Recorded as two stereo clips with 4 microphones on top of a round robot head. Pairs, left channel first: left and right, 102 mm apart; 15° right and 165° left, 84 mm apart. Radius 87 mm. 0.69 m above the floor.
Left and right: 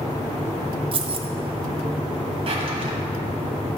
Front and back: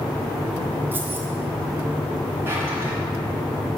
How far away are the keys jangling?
About 0.7 m.